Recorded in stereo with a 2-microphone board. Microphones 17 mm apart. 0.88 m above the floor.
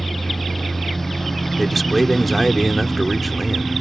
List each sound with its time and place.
0.0 s a lawn mower: 15° left (ahead or behind); by 3.8 s 10° left (ahead or behind)
1.6 s a man speaking: 5° left (ahead or behind)